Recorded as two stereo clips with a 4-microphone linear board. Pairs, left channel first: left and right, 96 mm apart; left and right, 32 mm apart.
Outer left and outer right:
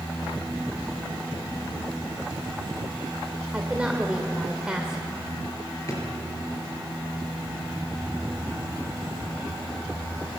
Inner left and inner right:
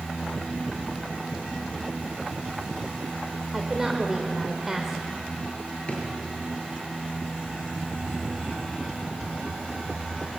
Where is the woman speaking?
10° right (ahead or behind), 1.9 m.